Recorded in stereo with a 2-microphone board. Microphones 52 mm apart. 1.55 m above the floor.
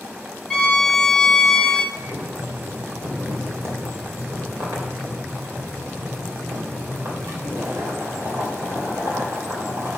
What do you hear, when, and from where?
0.5 s a violin: 15° left (ahead or behind), 0.9 m
1.9 s boiling: 60° right (ahead or behind), 3 m